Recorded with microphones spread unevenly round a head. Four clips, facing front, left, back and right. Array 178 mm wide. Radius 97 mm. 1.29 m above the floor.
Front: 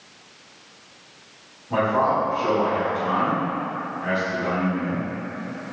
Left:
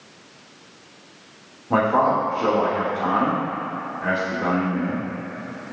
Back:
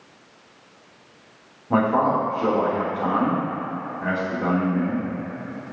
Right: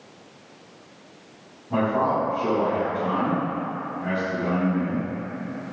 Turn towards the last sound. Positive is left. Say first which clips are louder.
# left 4 dB, back 1 dB
turn(degrees=115)